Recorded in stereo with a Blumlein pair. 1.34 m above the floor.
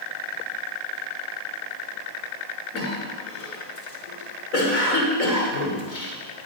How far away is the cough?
About 4.5 m.